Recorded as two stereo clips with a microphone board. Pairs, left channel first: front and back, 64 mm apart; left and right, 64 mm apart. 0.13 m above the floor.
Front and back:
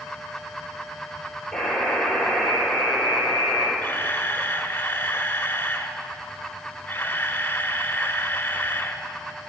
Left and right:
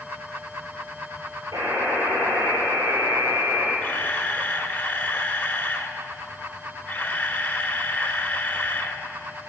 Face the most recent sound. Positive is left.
turn(degrees=40)